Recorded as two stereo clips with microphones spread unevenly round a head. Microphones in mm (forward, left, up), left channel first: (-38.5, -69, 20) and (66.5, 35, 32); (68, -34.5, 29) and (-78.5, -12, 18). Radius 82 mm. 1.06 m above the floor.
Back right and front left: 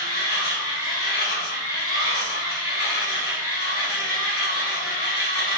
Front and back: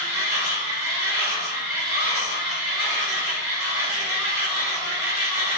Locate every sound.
0.0 s a machine running: 120° right, 1.7 m